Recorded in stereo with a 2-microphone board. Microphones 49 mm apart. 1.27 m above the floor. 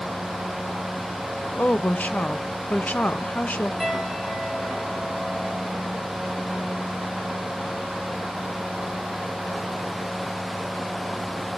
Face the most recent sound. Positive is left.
turn(degrees=0)  # may be behind; listen again after turning